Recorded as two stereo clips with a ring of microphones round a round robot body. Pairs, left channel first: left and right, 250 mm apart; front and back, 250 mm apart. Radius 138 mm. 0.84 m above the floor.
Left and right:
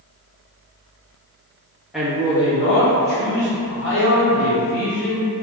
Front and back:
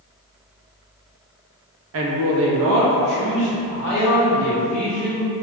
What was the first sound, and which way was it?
A man speaking, 175° right.